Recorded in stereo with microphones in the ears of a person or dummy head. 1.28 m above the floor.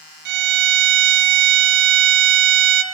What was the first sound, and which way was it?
A violin, 55° right (ahead or behind).